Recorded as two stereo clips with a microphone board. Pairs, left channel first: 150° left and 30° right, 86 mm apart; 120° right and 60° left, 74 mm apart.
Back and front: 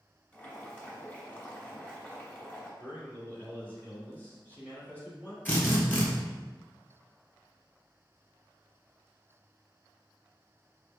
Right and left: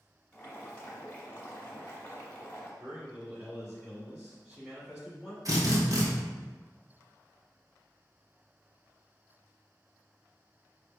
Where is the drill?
85° left, 1.5 m.